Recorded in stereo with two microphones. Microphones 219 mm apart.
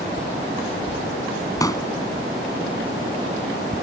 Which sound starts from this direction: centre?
A pop, at 1.6 s.